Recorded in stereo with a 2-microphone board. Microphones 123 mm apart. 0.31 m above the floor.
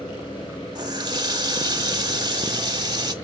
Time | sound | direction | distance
0.8 | a running tap | 35° right (ahead or behind) | 1.0 m